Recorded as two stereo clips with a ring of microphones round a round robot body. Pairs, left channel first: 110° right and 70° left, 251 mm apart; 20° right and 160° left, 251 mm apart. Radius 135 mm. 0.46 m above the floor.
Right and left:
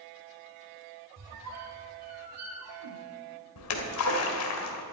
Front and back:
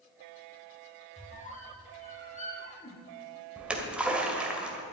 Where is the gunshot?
I don't hear a gunshot.